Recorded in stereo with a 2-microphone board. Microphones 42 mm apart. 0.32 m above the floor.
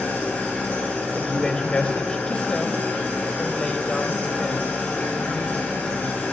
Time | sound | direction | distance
0.0 | an engine running | 40° left (ahead or behind) | 3.5 m
1.1 | a woman speaking | 25° left (ahead or behind) | 1.1 m